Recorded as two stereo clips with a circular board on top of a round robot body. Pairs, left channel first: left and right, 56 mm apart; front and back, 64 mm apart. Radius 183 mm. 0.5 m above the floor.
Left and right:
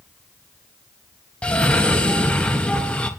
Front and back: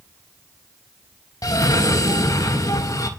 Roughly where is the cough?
Ahead.